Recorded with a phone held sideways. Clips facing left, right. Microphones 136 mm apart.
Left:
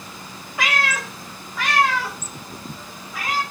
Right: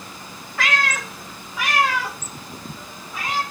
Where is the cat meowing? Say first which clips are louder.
Even; 15° left (ahead or behind), 0.9 m; by 3.4 s 25° right (ahead or behind), 2.5 m.